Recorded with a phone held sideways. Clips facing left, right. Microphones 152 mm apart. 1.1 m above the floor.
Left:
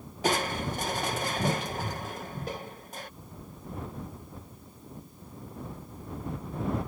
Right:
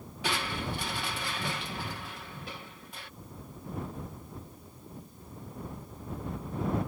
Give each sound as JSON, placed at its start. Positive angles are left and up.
{"t": 0.2, "sound": "crushing", "side_deg": 40}